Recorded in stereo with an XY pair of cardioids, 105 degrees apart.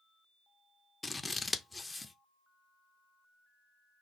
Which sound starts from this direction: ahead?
Scissors, at 1.0 s.